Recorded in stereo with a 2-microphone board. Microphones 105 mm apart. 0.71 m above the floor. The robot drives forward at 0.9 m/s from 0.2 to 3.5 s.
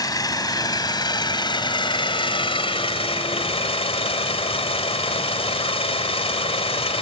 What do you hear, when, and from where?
0.0 s an engine running: 40° left (ahead or behind); by 7.0 s 75° left (ahead or behind)